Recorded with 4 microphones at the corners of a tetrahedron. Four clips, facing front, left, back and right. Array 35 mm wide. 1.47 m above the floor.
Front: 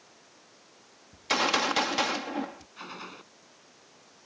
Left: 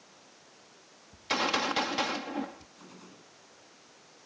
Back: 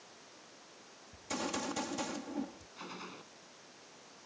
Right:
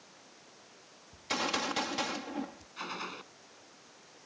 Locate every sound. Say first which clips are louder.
1.1 s a gunshot: left 4 dB, front 12 dB; 15° left
2.8 s a gunshot: right 12 dB, front 4 dB; 65° right